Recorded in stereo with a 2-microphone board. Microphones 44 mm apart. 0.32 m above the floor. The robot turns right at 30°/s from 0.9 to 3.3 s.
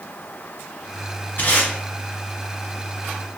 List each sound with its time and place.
1.4 s tape being pulled: 45° left (ahead or behind), 1.3 m; by 1.7 s 40° left (ahead or behind), 1.3 m